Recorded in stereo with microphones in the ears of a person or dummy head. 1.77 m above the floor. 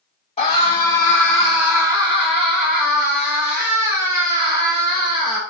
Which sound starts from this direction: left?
A scream, at 0.4 s.